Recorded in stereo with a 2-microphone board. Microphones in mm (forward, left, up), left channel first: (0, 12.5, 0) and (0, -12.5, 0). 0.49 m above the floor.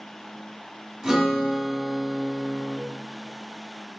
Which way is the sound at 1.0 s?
20° right (ahead or behind).